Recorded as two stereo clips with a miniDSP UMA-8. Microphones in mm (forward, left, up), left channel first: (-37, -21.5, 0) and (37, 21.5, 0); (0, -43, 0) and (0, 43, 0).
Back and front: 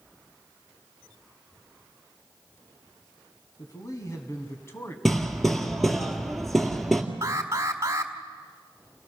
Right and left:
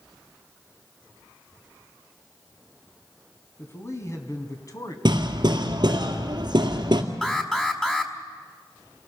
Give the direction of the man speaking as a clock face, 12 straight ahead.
4 o'clock.